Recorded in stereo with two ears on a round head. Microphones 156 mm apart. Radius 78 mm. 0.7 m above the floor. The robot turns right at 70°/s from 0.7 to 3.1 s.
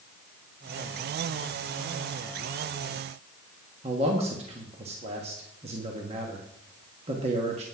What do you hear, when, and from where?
3.8 s a man speaking: 35° right (ahead or behind), 1.3 m